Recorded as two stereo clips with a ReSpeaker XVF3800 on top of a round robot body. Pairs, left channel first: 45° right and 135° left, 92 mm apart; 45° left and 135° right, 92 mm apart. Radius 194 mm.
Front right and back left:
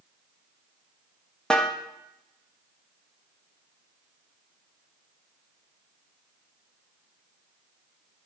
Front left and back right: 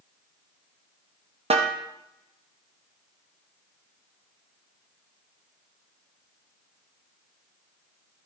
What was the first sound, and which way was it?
A snare drum, 130° right.